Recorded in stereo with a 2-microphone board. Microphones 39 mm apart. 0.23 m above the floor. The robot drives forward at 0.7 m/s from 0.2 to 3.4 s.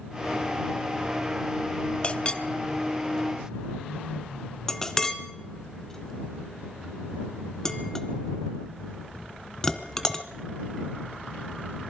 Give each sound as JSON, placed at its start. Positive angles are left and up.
{"t": 2.0, "sound": "a clink", "side_deg": 30, "distance_m": 0.6}